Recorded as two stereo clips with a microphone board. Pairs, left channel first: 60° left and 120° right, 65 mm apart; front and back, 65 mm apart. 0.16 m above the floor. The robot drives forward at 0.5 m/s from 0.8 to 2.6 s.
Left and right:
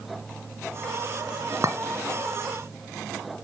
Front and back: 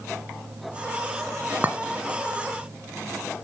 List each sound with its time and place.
1.6 s a clink: 125° right, 1.1 m; by 1.8 s 130° right, 1.1 m